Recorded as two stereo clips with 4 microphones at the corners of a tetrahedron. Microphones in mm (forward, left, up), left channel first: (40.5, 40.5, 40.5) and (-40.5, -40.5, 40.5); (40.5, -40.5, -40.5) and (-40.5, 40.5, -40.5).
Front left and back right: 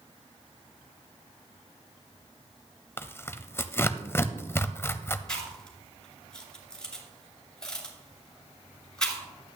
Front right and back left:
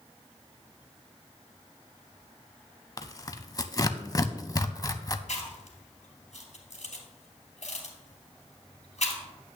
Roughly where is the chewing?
Ahead right.